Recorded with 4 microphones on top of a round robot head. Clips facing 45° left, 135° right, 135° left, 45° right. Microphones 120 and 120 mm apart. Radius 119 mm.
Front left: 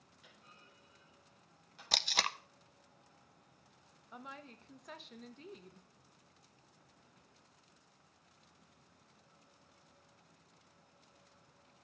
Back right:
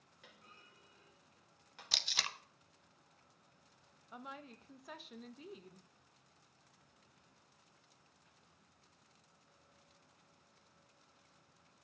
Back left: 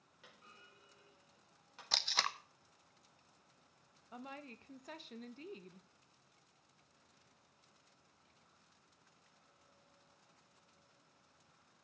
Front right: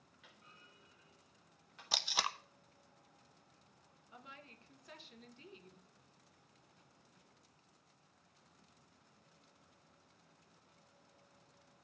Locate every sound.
0.2 s a clunk: 170° right, 4 m
1.9 s tape being pulled: 30° left, 0.7 m
4.1 s a woman speaking: 140° left, 1.0 m